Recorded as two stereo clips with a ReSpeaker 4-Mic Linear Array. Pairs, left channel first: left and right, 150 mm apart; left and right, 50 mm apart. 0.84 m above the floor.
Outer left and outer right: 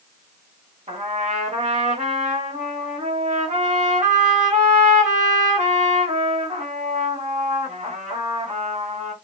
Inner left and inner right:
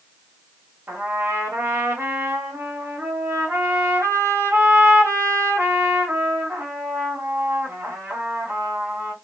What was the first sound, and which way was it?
A trumpet, 50° right (ahead or behind).